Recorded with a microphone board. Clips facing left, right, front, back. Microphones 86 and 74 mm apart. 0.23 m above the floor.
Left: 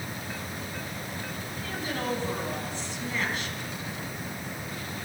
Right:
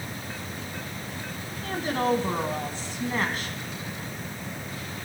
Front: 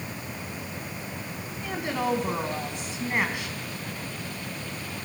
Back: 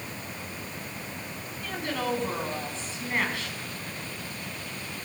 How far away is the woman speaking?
About 1.6 m.